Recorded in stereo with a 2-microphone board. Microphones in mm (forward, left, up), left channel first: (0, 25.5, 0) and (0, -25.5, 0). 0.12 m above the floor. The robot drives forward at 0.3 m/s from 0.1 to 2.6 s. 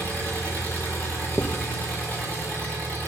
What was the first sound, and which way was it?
An engine running, 30° left (ahead or behind).